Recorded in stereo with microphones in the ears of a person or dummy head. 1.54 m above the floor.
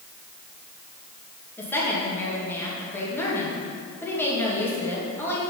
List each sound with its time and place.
1.6 s a woman speaking: 15° left (ahead or behind), 2.5 m